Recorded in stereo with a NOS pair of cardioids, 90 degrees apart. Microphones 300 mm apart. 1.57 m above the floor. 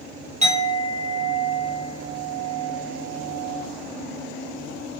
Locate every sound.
0.4 s a clink: 25° right, 2.5 m